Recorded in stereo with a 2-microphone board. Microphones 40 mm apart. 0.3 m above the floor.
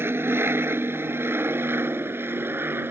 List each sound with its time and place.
0.0 s an aircraft: 75° right (ahead or behind); by 2.9 s 65° right (ahead or behind)